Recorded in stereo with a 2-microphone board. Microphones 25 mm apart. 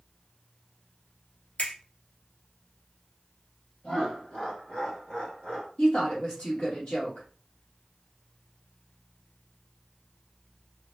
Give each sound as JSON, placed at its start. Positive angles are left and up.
{"t": 1.6, "sound": "a finger snap", "side_deg": 55, "distance_m": 2.0}
{"t": 3.8, "sound": "laughter", "side_deg": 35, "distance_m": 2.5}
{"t": 5.8, "sound": "a woman speaking", "side_deg": 30, "distance_m": 2.5}